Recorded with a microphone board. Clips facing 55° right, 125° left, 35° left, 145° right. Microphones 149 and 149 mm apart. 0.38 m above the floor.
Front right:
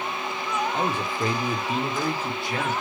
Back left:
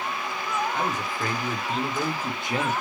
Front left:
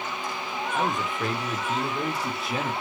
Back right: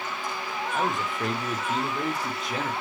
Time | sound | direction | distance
0.7 | a man speaking | 60° right | 1.0 m